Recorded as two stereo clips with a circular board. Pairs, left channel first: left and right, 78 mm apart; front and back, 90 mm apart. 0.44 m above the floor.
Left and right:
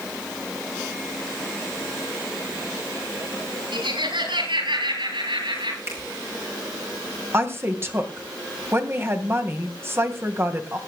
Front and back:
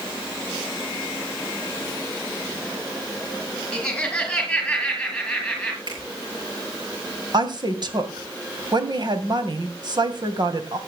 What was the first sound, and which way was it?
Laughter, 80° right.